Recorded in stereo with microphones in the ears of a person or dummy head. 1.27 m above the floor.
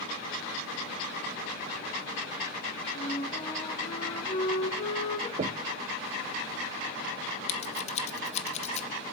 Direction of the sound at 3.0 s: 30° left (ahead or behind).